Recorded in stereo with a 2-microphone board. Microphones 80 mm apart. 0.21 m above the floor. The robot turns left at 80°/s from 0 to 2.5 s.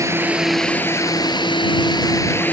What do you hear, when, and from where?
0.0 s a drone: 140° right; by 2.5 s 20° left